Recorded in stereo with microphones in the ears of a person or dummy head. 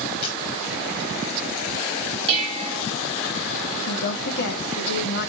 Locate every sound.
0.2 s a camera shutter: 30° left (ahead or behind), 3 m
2.3 s dishes clattering: 35° right (ahead or behind), 5 m
3.9 s a woman speaking: 55° left (ahead or behind), 1.7 m